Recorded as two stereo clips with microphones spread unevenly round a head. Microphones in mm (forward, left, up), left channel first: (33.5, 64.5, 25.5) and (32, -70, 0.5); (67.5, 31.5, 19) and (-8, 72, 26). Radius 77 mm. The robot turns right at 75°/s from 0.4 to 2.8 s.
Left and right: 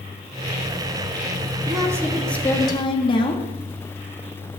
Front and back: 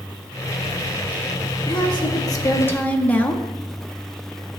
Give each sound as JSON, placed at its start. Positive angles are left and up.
{"t": 1.7, "sound": "a woman speaking", "azimuth_deg": -50, "distance_m": 1.3}